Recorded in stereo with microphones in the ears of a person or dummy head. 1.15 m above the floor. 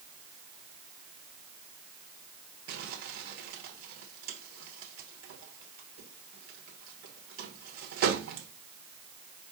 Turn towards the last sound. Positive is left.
turn(degrees=-55)  # may be behind; listen again after turning